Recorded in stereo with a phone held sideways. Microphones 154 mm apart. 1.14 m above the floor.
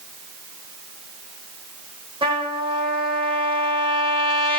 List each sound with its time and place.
2.2 s a trumpet: 35° right (ahead or behind), 1.4 m